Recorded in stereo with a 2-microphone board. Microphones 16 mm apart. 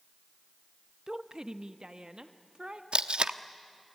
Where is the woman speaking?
35° right (ahead or behind), 0.8 m; by 2.8 s 65° right (ahead or behind), 1.5 m.